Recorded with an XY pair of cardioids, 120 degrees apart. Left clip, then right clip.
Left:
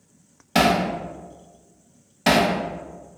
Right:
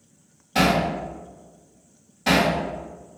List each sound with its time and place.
0.6 s hammering: 50° left, 0.9 m